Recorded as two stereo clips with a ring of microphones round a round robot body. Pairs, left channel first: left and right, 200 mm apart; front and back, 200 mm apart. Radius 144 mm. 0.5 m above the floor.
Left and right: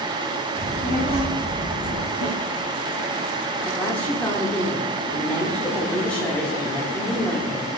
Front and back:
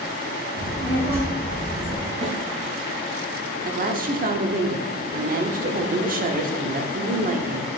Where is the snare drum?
130° left, 4 m.